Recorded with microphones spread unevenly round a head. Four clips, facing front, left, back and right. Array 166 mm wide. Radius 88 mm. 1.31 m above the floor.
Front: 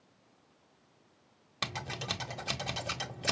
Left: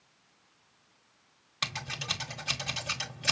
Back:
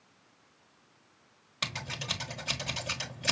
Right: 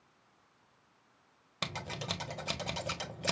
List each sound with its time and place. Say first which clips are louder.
1.6 s scissors: left 1 dB, front 1 dB; 50° right, 1.4 m